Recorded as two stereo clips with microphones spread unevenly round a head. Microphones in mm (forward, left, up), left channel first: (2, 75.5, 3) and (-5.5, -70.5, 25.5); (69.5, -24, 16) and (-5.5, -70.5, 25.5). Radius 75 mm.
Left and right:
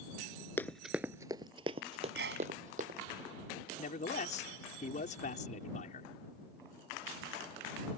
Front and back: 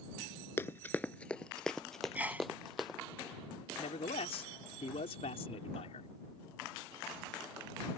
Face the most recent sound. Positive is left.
turn(degrees=45)